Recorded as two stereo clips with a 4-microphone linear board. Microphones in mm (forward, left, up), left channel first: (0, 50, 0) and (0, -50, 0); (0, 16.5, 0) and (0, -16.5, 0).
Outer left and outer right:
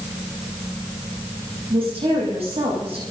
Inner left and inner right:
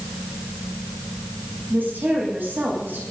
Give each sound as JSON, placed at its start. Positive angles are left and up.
{"t": 1.7, "sound": "a woman speaking", "side_deg": -80, "distance_m": 8.5}